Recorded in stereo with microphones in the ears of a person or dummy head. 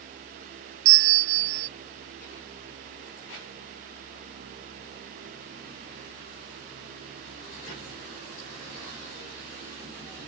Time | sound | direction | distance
0.8 | a bell | 70° right (ahead or behind) | ?